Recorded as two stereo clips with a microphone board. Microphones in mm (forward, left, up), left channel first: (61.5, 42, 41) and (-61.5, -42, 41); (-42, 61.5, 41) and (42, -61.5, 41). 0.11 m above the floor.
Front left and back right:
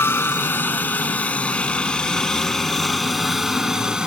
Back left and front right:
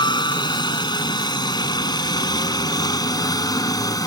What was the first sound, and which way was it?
A helicopter, 95° left.